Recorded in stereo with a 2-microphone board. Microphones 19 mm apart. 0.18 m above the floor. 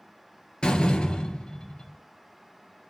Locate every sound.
0.6 s a door slam: 45° left (ahead or behind), 2.5 m